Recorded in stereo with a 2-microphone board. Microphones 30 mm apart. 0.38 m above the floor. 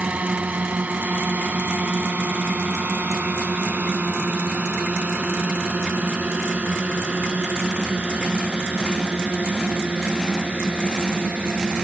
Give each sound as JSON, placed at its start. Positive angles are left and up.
{"t": 0.0, "sound": "a drone", "side_deg": -60}